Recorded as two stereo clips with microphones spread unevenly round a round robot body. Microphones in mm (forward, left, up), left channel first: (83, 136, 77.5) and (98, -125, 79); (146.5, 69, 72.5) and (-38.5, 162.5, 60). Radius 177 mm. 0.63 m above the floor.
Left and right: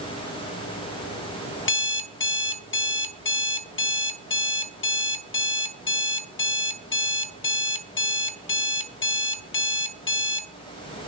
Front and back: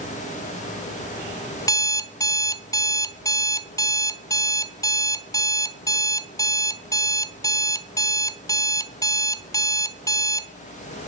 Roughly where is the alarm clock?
Ahead left.